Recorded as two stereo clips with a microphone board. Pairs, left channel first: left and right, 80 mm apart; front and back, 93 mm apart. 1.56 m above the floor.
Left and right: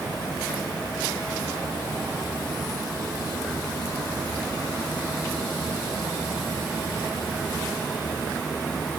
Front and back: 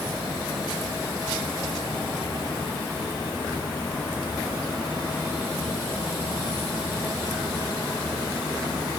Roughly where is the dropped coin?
I don't hear a dropped coin.